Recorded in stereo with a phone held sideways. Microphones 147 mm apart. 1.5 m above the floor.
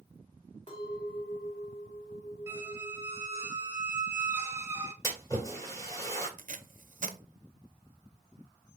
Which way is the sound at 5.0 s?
20° left (ahead or behind).